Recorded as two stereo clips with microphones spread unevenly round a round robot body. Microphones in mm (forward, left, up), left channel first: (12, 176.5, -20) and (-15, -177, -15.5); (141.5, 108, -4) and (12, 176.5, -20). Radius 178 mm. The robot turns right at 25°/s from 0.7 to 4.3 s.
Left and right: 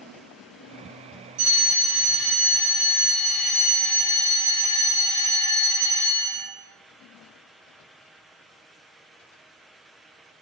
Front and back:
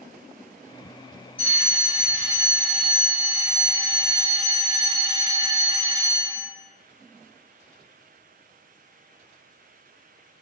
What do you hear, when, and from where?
1.4 s a fire alarm: 110° right, 1.8 m; by 6.5 s 40° right, 1.8 m